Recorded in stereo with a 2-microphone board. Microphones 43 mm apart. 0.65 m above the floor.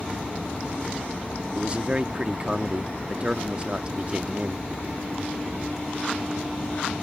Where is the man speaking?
25° right (ahead or behind).